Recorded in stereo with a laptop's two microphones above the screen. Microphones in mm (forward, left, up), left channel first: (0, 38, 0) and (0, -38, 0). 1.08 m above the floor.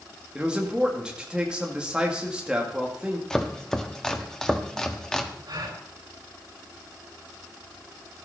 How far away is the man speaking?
About 2 m.